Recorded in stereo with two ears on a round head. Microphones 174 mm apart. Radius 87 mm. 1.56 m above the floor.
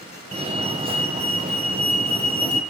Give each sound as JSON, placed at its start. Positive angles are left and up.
{"t": 0.3, "sound": "a fire alarm", "side_deg": -30, "distance_m": 2.0}